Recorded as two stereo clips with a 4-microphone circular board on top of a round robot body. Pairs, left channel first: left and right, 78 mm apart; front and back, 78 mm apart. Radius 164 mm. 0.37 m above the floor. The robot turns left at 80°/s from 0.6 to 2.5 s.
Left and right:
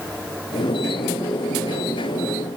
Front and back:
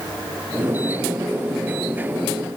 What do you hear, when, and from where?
Only background noise.